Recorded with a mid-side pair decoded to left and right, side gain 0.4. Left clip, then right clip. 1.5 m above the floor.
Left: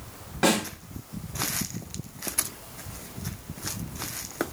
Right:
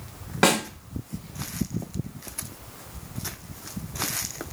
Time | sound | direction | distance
0.4 | a snare drum | 60° right | 1.0 m